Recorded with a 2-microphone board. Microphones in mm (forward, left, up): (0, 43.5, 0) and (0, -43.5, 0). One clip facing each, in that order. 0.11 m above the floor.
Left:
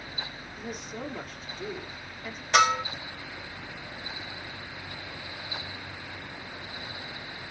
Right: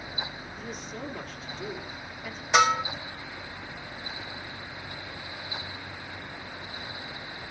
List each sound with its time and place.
0.6 s a woman speaking: 5° left (ahead or behind), 3 m
2.5 s a bell: 10° right (ahead or behind), 2 m